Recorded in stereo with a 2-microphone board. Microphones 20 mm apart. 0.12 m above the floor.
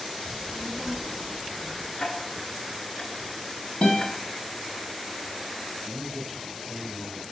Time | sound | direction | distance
0.2 | a child speaking | 10° right (ahead or behind) | 1.3 m
2.0 | ticking | 40° left (ahead or behind) | 0.8 m
3.8 | a guitar | 90° left | 2.5 m
5.8 | a man speaking | centre (ahead or behind) | 1.5 m